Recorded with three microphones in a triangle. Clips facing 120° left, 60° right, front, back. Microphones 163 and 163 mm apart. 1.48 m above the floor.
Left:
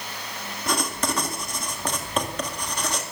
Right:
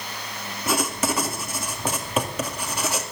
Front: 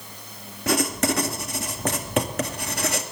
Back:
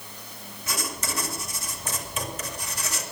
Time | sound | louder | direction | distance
0.7 | writing | right 2 dB, front 11 dB | 25° left | 2 m